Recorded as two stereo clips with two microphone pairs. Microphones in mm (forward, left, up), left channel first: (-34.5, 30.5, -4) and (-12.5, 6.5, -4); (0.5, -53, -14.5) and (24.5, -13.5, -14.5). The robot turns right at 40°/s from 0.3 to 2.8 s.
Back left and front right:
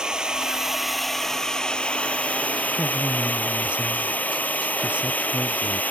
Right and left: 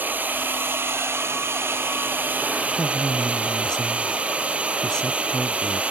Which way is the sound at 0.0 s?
15° left.